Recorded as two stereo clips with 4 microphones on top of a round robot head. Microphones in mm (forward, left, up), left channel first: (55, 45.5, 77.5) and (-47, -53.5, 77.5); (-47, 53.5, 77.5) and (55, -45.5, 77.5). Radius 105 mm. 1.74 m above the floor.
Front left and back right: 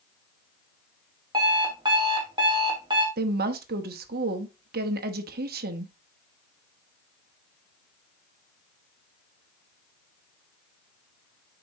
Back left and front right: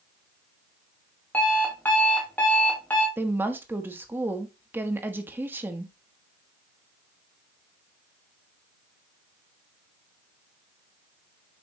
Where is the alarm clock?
155° right, 1.1 m.